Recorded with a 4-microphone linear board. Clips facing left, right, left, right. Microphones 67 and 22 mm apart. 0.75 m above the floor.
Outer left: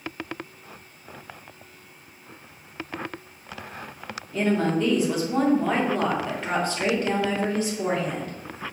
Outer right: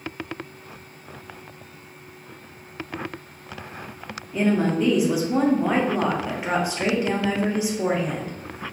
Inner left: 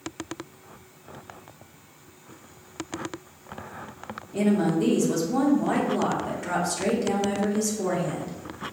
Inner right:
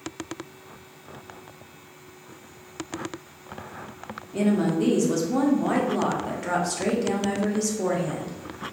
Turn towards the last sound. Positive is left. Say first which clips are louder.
# outer right 2 dB, even
turn(degrees=-10)  # may be behind; listen again after turning